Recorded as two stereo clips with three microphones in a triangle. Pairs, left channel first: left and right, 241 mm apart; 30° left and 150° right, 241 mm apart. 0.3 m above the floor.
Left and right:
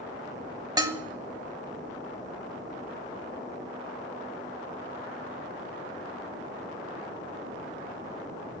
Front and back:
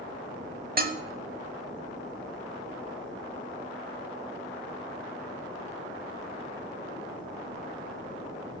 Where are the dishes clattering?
155° right, 0.9 m.